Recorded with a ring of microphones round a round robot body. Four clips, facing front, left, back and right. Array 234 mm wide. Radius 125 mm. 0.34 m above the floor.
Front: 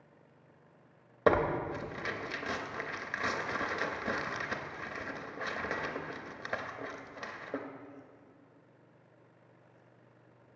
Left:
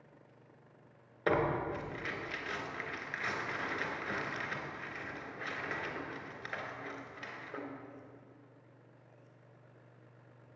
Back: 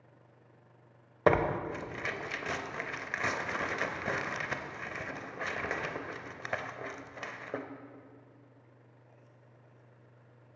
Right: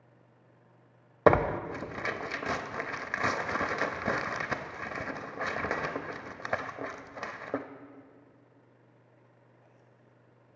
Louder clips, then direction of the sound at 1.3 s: Right 8 dB, back 1 dB; 95° right.